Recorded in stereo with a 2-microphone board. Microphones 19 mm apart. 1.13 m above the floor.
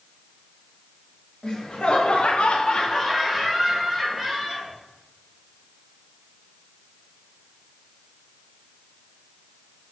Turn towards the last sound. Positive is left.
turn(degrees=-15)  # may be behind; listen again after turning